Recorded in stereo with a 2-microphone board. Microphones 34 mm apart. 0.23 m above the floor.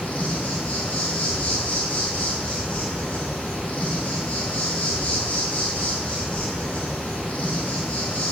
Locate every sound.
0.0 s an insect: 40° left (ahead or behind), 2.0 m